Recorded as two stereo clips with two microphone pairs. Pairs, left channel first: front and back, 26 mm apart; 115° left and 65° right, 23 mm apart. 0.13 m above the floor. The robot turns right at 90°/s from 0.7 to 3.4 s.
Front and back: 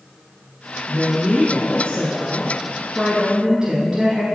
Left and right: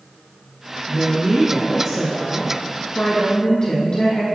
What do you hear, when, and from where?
0.9 s a woman speaking: 100° right, 1.5 m; by 4.2 s 125° left, 1.5 m